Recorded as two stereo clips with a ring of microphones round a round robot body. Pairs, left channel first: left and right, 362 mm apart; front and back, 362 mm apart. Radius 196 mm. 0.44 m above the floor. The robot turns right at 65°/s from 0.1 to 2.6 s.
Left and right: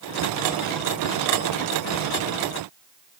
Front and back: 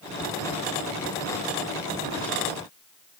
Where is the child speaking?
No child speaking in this recording.